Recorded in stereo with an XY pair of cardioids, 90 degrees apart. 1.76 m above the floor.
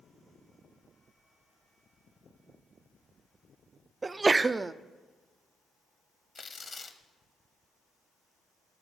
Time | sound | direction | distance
4.0 | a sneeze | 30° right | 0.5 m
6.3 | tearing paper | 40° left | 1.1 m